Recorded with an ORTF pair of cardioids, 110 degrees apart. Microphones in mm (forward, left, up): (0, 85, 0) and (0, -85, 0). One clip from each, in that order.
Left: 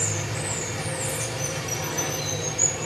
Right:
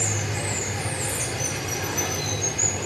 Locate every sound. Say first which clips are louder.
0.0 s running water: right 1 dB; 25° right, 6 m